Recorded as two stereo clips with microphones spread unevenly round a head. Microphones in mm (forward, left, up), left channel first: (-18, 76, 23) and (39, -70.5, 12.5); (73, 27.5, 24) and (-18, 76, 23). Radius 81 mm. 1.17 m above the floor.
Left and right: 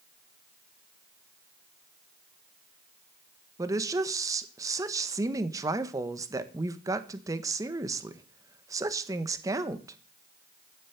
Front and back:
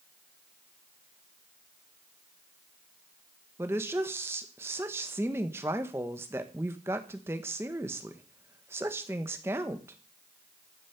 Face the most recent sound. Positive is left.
turn(degrees=-135)